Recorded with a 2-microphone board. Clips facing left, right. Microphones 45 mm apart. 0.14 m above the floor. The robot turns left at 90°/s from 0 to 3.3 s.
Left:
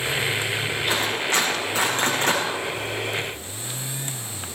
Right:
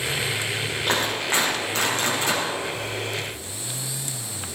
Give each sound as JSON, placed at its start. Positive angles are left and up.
{"t": 0.9, "sound": "a clap", "side_deg": -70, "distance_m": 6.5}